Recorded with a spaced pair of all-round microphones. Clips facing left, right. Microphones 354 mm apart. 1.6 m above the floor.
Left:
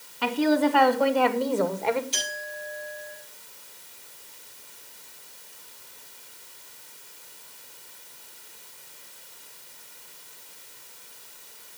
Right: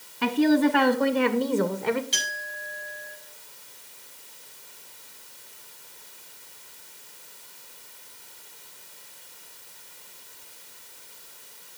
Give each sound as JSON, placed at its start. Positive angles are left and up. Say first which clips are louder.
{"t": 0.2, "sound": "a woman speaking", "louder": "right 2 dB", "side_deg": -30, "distance_m": 2.5}
{"t": 2.1, "sound": "a clink", "louder": "left 4 dB", "side_deg": -85, "distance_m": 9.0}